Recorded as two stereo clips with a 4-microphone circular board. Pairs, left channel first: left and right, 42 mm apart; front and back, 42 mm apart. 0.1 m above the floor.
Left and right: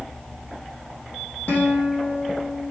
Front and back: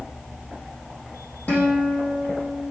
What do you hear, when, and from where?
1.5 s a guitar: 45° left, 4.5 m